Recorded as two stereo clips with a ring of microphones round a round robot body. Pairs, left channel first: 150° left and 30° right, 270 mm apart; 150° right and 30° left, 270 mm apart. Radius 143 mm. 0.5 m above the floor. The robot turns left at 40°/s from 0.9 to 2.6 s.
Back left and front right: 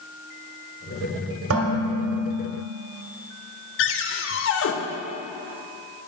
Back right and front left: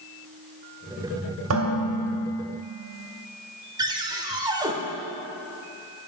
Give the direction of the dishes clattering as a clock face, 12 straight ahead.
12 o'clock.